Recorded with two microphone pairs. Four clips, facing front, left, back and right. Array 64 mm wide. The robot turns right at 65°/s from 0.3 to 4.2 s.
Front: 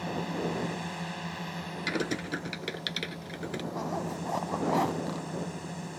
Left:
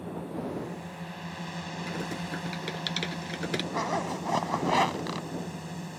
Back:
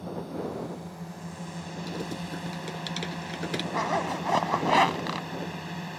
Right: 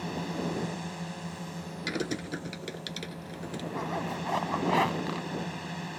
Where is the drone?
35° right; by 6.0 s 140° right.